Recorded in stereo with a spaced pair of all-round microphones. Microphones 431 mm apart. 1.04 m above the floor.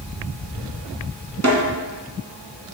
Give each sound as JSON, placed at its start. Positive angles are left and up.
{"t": 1.4, "sound": "a snare drum", "side_deg": -35, "distance_m": 1.5}